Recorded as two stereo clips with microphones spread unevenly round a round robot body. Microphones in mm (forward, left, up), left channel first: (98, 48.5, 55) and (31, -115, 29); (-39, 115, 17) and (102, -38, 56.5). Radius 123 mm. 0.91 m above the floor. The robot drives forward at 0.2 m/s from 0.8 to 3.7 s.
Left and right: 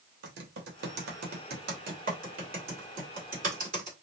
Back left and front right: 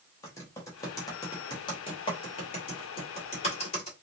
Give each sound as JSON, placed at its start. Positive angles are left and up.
{"t": 0.2, "sound": "typing on a keyboard", "azimuth_deg": -150, "distance_m": 0.7}